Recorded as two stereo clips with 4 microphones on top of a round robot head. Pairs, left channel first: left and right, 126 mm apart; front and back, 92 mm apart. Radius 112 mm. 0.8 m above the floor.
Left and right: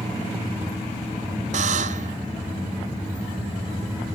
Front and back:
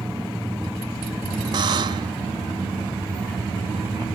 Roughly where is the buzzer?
Behind right.